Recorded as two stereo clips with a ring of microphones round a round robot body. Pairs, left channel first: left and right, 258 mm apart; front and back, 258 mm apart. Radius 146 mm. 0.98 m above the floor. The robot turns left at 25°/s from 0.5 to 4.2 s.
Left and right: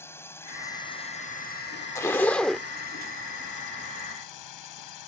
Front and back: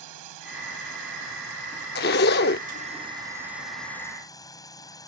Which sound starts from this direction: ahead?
A zipper, at 1.9 s.